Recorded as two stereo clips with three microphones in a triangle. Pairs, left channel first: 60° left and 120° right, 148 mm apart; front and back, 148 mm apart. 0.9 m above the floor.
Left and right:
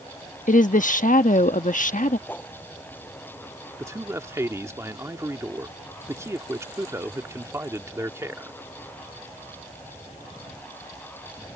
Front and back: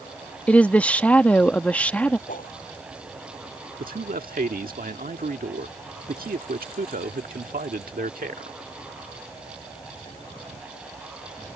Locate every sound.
0.5 s a woman speaking: 80° left
2.3 s a whoosh: 15° right
3.8 s a man speaking: 170° left